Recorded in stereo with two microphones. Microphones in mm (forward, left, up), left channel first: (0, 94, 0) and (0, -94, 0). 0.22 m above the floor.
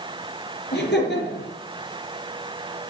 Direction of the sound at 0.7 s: 70° left (ahead or behind).